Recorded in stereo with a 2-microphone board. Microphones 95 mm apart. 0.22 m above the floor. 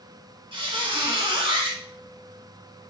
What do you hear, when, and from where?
0.5 s a squeak: 70° right (ahead or behind), 0.8 m